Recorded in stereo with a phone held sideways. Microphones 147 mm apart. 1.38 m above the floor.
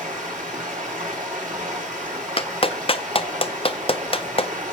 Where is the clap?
40° left (ahead or behind), 0.5 m.